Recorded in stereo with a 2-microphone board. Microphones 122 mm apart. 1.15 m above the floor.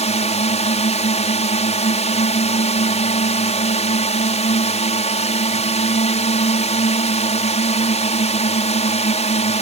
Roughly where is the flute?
I don't hear a flute.